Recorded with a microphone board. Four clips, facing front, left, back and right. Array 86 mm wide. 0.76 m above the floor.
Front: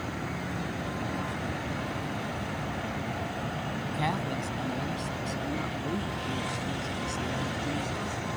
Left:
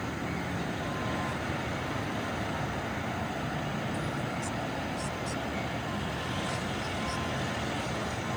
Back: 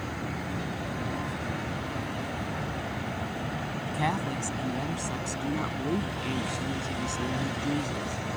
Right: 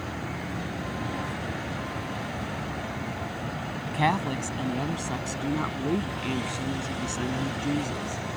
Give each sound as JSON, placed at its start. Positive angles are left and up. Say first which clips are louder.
{"t": 3.9, "sound": "a woman speaking", "louder": "right 8 dB, back 2 dB", "azimuth_deg": -100}